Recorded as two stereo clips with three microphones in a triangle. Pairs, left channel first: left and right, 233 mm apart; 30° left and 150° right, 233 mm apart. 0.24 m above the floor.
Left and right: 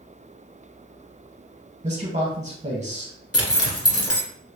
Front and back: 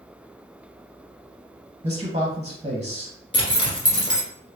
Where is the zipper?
95° left, 1.2 m.